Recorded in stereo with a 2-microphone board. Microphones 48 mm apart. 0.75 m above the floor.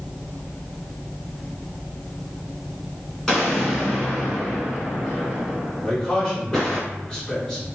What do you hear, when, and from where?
3.3 s an explosion: 10° left (ahead or behind), 1.5 m
5.8 s a man speaking: 10° left (ahead or behind), 1.4 m